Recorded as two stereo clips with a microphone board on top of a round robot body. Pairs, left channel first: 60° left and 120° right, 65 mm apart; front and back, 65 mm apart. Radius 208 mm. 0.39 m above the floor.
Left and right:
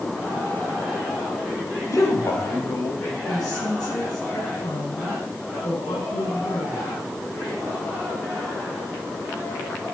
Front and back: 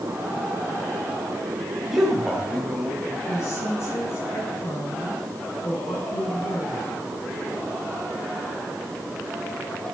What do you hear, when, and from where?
1.9 s a man speaking: 95° left, 3 m
3.3 s a woman speaking: 45° left, 6 m